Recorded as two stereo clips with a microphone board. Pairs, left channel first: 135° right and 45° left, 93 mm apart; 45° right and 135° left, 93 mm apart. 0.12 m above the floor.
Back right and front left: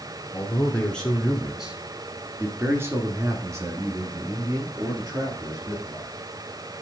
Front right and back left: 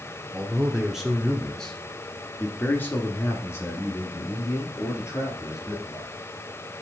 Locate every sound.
0.3 s a man speaking: 170° right, 1.3 m; by 6.2 s 10° left, 3 m